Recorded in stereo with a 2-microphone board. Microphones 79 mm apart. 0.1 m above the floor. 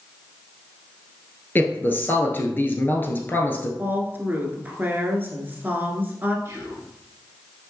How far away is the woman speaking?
About 1.4 m.